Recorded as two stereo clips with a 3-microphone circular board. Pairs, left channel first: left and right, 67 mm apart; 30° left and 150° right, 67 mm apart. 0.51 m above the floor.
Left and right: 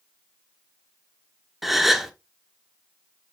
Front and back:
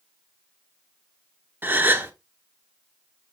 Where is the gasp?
175° right, 1.3 m.